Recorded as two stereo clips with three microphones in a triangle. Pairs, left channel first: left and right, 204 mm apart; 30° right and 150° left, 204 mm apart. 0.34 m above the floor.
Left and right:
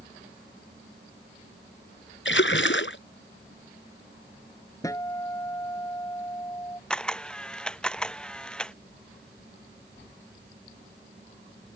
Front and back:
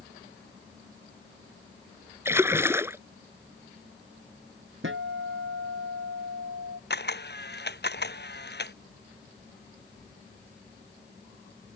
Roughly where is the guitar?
Behind.